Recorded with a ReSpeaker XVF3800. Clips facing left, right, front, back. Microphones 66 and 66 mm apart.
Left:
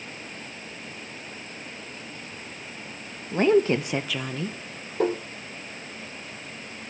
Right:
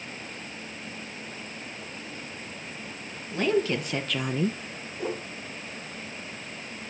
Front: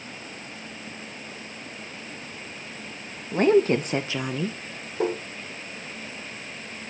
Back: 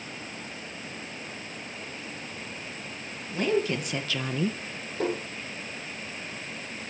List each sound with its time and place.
3.3 s a woman speaking: 40° left, 1.4 m; by 4.6 s 110° right, 0.8 m
5.0 s tapping: 75° left, 9 m